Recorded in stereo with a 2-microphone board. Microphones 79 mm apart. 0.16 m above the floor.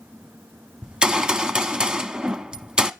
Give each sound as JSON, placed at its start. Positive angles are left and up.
{"t": 0.8, "sound": "a gunshot", "side_deg": -10, "distance_m": 0.7}